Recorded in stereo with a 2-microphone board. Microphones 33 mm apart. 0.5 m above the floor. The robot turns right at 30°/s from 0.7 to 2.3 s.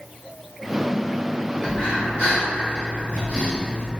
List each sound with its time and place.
1.6 s breathing: 50° left (ahead or behind), 1.9 m; by 3.9 s 55° left (ahead or behind), 1.9 m